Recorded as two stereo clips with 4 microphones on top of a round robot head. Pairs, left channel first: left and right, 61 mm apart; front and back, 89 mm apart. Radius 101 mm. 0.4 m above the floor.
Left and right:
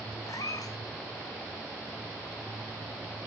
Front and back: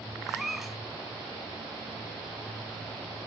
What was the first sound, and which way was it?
A cat meowing, 95° left.